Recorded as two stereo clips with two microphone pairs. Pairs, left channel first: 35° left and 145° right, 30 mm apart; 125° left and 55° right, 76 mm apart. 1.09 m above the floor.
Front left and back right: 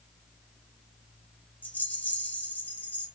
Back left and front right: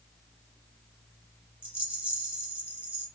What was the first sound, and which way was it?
A rattle, 20° left.